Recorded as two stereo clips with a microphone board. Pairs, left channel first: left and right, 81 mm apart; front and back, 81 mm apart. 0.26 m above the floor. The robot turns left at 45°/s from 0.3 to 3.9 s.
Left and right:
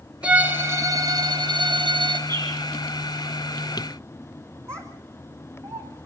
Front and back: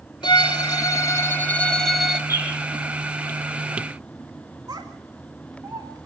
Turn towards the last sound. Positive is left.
turn(degrees=-135)